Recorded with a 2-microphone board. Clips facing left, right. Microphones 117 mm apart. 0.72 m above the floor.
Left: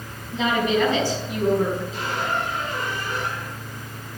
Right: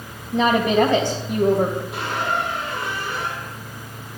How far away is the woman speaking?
About 3.5 m.